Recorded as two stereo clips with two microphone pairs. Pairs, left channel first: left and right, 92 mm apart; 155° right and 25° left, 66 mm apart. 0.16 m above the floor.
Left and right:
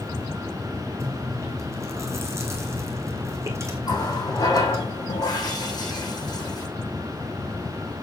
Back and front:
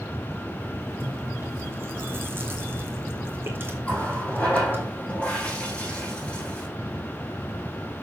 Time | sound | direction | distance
1.0 | chewing | 35° right | 2 m
3.8 | a running tap | 130° left | 5 m